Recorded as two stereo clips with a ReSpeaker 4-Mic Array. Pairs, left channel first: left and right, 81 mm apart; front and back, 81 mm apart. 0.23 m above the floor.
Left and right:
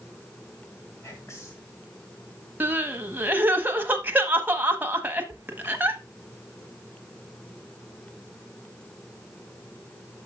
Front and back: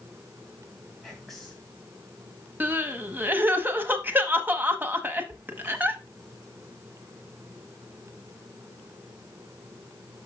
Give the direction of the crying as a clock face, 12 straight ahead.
5 o'clock.